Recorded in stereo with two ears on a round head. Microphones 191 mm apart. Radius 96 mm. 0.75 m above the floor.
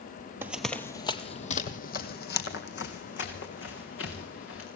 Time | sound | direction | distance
0.4 | running footsteps | 10° right (ahead or behind) | 1.1 m